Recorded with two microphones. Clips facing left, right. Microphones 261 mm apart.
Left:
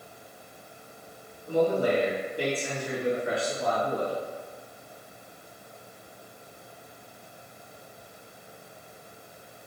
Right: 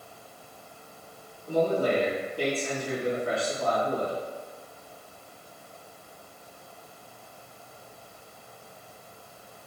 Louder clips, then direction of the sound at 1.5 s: Left 1 dB; 20° left (ahead or behind).